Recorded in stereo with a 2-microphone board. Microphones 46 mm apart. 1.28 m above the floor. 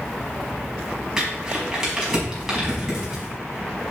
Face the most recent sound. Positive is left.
turn(degrees=-10)  # may be behind; listen again after turning